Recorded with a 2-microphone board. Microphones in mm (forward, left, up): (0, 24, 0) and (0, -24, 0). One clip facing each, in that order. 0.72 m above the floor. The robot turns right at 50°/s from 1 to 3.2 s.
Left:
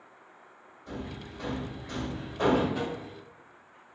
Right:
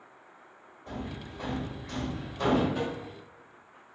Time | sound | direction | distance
0.9 | hammering | 35° right (ahead or behind) | 1.2 m
2.8 | tapping | 5° left (ahead or behind) | 0.9 m